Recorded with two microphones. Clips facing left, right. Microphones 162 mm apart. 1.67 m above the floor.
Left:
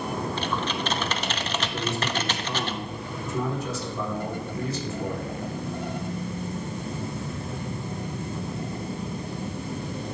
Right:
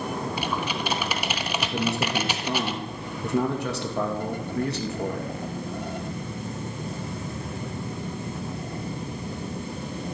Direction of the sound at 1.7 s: 70° right (ahead or behind).